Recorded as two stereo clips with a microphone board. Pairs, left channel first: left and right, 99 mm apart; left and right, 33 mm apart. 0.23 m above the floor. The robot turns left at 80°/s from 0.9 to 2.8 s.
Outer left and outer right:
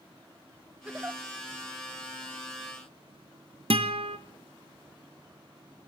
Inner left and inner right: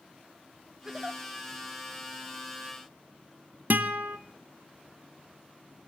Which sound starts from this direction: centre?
A giggle, at 0.8 s.